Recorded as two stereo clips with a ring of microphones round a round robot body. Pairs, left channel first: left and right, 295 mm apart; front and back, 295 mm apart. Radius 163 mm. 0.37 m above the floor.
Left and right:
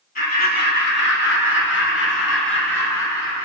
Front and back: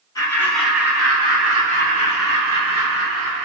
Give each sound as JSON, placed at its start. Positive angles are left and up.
{"t": 0.1, "sound": "laughter", "azimuth_deg": 65, "distance_m": 1.0}